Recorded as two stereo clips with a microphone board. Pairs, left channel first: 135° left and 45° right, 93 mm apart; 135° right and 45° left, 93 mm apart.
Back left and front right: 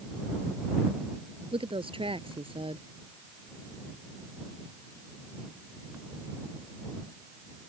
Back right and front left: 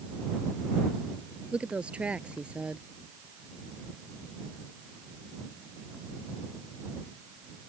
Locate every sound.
1.5 s a woman speaking: 30° right